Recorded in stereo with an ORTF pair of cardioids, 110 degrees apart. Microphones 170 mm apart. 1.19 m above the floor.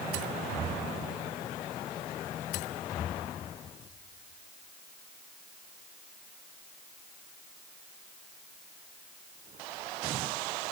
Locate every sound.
Only background noise.